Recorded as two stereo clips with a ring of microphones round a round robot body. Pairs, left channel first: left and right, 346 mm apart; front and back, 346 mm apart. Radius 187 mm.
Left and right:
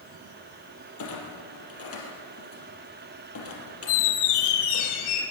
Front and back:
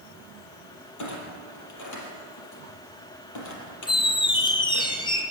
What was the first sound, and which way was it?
A clunk, 40° left.